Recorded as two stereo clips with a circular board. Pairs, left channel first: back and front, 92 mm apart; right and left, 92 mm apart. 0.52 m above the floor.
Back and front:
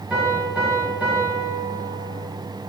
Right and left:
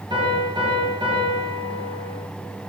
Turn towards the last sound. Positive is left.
turn(degrees=75)